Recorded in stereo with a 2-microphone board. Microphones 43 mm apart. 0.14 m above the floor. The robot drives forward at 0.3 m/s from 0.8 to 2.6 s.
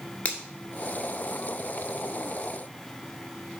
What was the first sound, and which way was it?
A finger snap, 35° left (ahead or behind).